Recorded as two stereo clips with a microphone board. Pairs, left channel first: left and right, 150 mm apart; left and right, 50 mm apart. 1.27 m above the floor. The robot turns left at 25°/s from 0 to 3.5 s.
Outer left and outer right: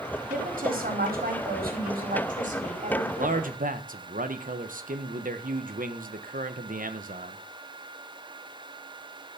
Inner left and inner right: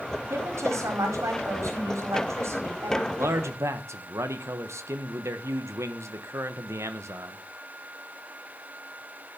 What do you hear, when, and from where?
0.3 s a woman speaking: 65° right, 4.5 m; by 3.1 s 135° right, 4.5 m
3.2 s a man speaking: 60° right (ahead or behind), 1.4 m; by 7.4 s 65° right (ahead or behind), 1.4 m